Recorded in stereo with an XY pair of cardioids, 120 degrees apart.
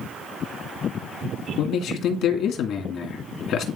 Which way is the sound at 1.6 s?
70° left.